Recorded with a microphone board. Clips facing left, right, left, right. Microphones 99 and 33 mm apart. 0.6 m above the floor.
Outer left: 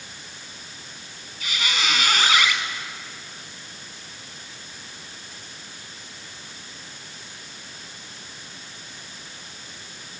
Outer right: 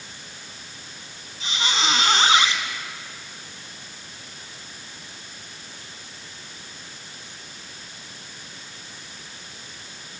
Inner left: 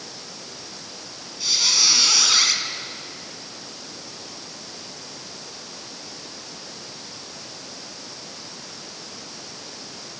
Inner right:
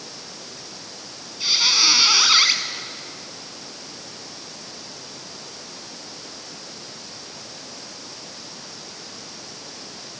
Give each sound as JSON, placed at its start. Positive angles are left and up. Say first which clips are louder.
{"t": 1.4, "sound": "a squeak", "louder": "outer right 2 dB, inner right 3 dB", "side_deg": -25, "distance_m": 1.6}